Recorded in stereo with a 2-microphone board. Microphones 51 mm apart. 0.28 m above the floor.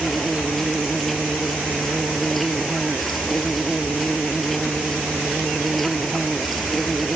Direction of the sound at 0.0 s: Centre (ahead or behind).